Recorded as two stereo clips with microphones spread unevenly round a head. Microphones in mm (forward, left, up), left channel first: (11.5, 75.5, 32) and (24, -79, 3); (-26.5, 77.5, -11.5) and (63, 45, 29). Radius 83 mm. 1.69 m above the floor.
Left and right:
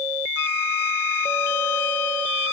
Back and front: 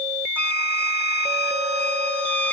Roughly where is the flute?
Left.